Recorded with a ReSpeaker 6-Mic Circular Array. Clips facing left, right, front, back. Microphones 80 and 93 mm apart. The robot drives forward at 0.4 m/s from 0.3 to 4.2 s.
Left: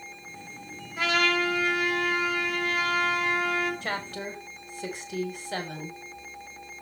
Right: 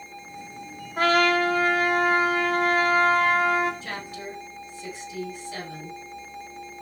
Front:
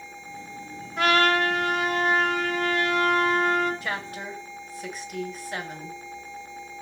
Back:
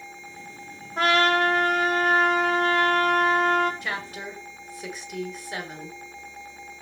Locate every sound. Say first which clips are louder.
1.0 s a trumpet: right 5 dB, back 1 dB; 130° right, 2.5 m; by 3.7 s 145° right, 3 m
3.8 s a woman speaking: left 2 dB, front 1 dB; 90° left, 4 m